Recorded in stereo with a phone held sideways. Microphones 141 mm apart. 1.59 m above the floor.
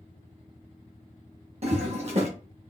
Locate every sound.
1.6 s a toilet flushing: 50° right (ahead or behind), 1.1 m